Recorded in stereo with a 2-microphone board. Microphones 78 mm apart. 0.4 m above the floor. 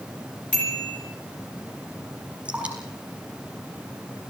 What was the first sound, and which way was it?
A bicycle bell, 15° left (ahead or behind).